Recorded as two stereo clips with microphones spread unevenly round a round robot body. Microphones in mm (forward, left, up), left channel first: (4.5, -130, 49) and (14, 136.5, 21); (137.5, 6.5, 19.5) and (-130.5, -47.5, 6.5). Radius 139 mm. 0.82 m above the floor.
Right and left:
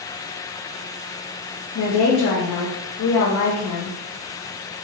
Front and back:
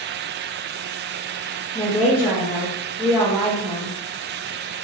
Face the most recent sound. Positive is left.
turn(degrees=-85)